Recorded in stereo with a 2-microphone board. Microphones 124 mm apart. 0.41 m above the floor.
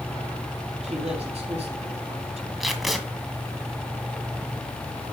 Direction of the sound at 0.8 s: 55° right (ahead or behind).